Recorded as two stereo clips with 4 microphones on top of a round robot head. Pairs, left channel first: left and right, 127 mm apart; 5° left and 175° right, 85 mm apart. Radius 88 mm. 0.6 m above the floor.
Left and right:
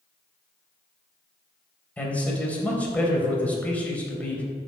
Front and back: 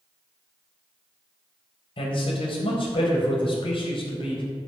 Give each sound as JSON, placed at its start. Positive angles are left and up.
{"t": 2.0, "sound": "a man speaking", "azimuth_deg": 10, "distance_m": 3.5}